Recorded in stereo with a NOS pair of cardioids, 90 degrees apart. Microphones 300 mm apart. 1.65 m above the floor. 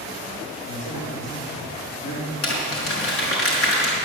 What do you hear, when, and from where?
0.6 s a man speaking: 60° left, 4 m
2.4 s crumpling: 50° left, 5 m